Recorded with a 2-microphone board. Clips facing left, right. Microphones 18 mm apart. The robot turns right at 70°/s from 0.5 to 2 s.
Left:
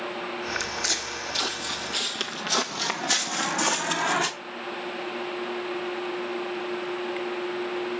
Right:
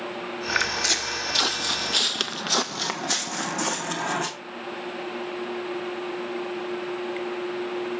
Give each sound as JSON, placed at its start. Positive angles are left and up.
{"t": 0.6, "sound": "footsteps", "side_deg": 5, "distance_m": 1.0}